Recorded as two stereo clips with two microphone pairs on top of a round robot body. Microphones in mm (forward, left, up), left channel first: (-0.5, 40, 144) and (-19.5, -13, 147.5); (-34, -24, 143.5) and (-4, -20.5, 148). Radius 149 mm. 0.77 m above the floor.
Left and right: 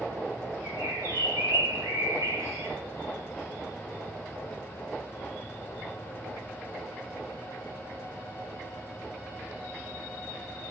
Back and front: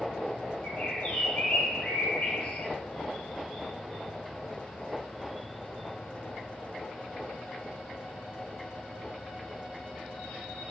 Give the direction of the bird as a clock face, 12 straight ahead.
4 o'clock.